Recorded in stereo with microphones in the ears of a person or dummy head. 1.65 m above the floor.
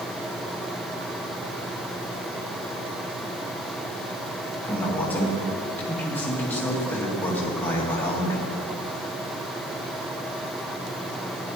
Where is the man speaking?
10° left (ahead or behind), 2 m.